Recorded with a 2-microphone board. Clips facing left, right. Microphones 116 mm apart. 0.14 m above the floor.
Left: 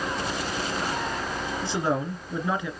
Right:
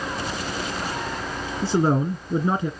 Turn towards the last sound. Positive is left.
turn(degrees=-30)  # may be behind; listen again after turning